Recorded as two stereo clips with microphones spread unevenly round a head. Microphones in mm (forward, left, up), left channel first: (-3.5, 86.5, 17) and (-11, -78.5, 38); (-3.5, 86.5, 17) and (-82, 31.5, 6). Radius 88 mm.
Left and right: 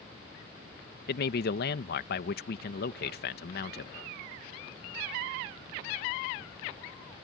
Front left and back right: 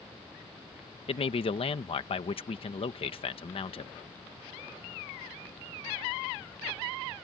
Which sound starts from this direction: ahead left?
A man speaking, at 1.1 s.